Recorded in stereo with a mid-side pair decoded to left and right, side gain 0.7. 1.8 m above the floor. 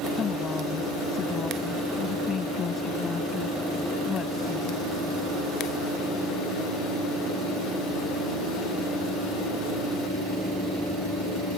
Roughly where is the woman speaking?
Ahead left.